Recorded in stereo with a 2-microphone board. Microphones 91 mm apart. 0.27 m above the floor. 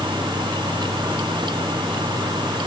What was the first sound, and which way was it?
Only background noise.